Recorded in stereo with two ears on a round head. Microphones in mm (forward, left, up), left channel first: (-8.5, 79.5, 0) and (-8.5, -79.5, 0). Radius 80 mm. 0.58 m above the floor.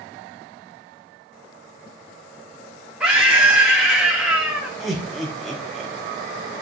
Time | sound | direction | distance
3.0 | a scream | 5° right (ahead or behind) | 1.3 m
4.8 | laughter | centre (ahead or behind) | 0.9 m